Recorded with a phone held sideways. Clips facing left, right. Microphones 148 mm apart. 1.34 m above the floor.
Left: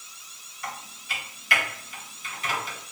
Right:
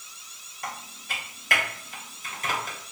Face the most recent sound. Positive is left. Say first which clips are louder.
# even
turn(degrees=-45)  # may be behind; listen again after turning